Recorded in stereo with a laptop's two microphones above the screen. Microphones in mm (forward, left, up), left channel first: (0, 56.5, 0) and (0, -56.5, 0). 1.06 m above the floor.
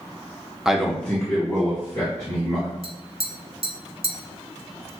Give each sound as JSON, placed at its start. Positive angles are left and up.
{"t": 0.7, "sound": "a man speaking", "side_deg": -5, "distance_m": 0.5}
{"t": 2.8, "sound": "tapping", "side_deg": -55, "distance_m": 0.5}